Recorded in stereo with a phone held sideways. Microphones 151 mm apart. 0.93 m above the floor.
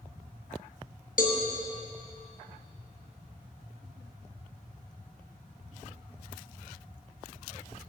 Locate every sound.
1.2 s a cowbell: 65° left (ahead or behind), 0.7 m